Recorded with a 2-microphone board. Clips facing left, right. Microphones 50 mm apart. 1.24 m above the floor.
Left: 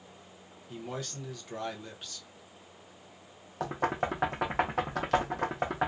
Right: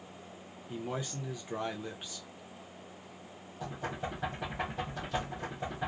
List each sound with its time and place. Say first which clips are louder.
0.7 s a man speaking: right 1 dB; 15° right (ahead or behind), 0.7 m
3.6 s knocking: left 8 dB; 70° left (ahead or behind), 0.5 m